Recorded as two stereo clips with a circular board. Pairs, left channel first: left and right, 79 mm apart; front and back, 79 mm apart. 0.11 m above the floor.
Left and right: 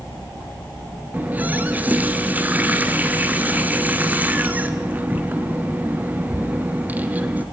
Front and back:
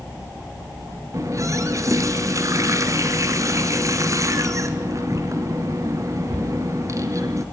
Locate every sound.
1.1 s a running tap: 155° right, 1.3 m